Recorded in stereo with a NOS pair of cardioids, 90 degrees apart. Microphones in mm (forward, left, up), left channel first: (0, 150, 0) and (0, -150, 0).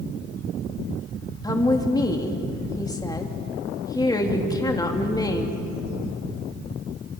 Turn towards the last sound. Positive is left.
turn(degrees=15)